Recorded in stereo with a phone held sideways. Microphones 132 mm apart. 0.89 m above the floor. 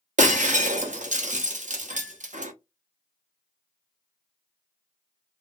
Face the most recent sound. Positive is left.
turn(degrees=-70)  # may be behind; listen again after turning